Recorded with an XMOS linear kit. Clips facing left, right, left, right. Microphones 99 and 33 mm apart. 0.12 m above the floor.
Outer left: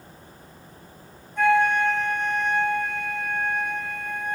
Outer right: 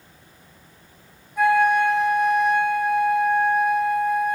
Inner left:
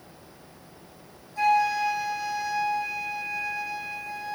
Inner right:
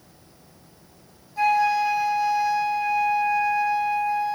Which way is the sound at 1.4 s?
5° right (ahead or behind).